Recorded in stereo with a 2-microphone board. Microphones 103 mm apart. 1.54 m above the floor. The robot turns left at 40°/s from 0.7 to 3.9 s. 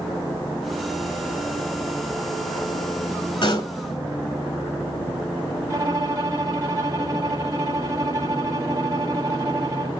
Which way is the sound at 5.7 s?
30° right (ahead or behind).